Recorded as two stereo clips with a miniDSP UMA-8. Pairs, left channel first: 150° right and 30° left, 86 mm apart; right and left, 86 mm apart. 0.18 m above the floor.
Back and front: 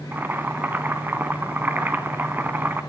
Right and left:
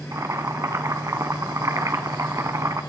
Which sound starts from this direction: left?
Boiling, at 0.1 s.